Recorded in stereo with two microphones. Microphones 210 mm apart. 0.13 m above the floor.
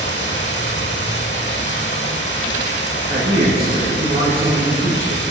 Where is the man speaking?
15° right (ahead or behind), 2.5 m.